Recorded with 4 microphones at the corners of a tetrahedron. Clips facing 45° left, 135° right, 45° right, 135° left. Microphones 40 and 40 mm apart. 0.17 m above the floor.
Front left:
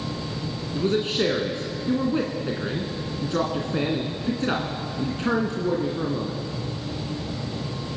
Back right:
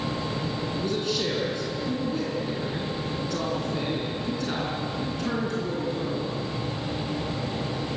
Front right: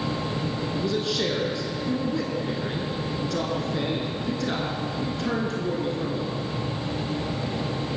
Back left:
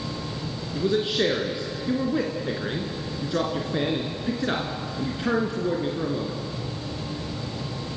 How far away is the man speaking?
About 2 m.